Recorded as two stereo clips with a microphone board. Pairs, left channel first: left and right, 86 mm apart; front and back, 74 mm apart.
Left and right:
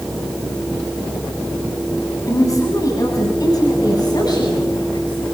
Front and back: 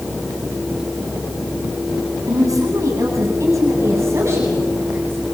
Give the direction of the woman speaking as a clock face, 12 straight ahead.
7 o'clock.